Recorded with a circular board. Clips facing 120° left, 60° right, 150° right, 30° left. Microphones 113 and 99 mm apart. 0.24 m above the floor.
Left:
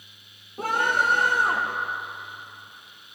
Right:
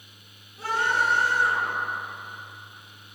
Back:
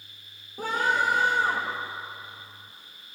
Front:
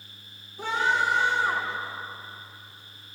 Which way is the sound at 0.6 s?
165° left.